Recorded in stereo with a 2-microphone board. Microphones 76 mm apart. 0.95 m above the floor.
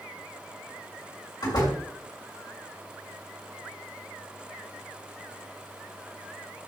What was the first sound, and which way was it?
A door slam, 60° left (ahead or behind).